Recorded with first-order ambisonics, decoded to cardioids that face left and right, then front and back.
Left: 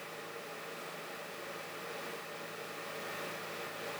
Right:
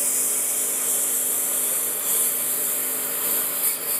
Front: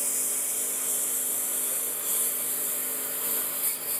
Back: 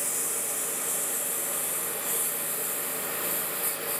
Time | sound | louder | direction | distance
0.0 | a lawn mower | right 15 dB, even | 85° right | ?